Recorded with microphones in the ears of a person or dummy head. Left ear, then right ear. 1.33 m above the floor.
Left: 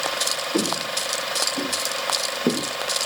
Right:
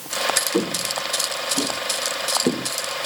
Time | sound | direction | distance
0.5 | footsteps | 55° right (ahead or behind) | 6.5 m